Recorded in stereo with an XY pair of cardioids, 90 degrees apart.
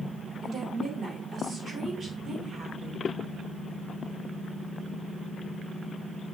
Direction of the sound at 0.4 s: 70° right.